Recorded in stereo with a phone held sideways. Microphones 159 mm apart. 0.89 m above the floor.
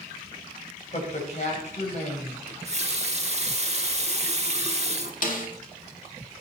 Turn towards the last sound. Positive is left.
turn(degrees=60)  # may be behind; listen again after turning